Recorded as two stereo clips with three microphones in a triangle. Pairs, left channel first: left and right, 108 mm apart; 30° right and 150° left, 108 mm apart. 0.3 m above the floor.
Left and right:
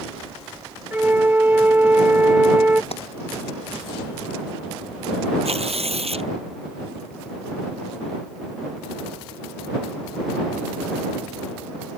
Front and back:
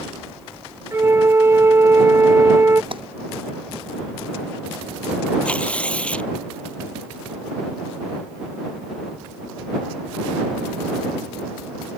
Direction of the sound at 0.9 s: 155° right.